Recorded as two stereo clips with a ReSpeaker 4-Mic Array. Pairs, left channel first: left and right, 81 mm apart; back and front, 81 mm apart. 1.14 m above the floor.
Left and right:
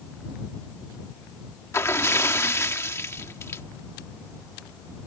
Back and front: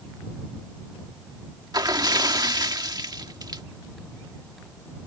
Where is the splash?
35° left.